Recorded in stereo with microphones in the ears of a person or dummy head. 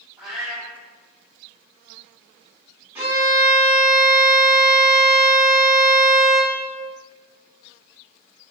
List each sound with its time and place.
0.2 s a cat meowing: centre (ahead or behind), 2.0 m
3.0 s a violin: 15° right (ahead or behind), 1.4 m